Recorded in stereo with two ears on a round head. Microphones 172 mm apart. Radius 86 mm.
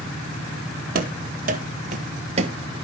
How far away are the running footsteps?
About 1.8 m.